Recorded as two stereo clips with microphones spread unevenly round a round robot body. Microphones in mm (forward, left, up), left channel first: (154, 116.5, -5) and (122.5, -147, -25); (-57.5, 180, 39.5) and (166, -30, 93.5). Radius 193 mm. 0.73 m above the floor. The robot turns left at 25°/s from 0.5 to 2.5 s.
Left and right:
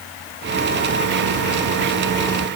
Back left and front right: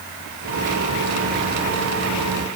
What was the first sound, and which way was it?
Only background noise.